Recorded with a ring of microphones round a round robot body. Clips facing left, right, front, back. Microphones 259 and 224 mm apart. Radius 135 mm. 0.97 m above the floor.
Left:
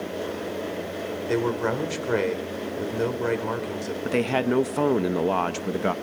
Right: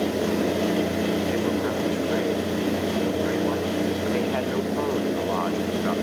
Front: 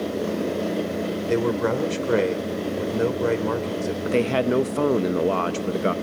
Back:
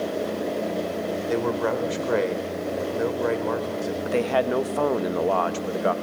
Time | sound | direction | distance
1.3 | a man speaking | 55° left | 4 m
4.0 | a man speaking | 55° left | 1.4 m